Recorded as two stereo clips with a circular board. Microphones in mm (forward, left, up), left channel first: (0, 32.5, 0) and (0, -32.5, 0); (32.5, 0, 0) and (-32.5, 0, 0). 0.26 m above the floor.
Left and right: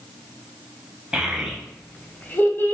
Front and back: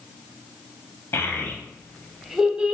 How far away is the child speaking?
About 0.6 m.